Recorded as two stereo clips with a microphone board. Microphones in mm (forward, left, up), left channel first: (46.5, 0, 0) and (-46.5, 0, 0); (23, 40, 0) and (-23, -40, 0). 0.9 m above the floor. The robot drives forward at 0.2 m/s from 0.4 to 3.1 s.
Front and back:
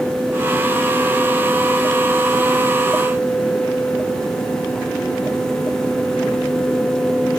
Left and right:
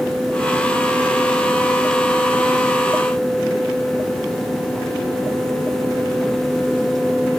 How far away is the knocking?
No knocking in this recording.